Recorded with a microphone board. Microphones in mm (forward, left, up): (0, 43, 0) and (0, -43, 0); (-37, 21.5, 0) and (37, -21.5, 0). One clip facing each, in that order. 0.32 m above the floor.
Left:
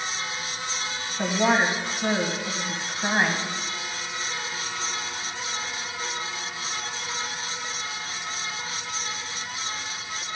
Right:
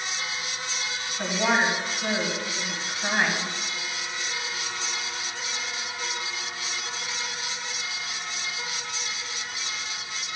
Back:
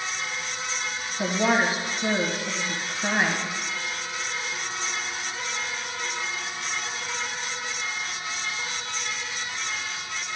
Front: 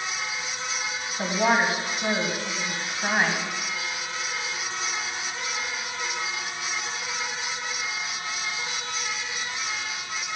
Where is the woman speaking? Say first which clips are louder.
Left 2 dB, even; 30° left, 2 m.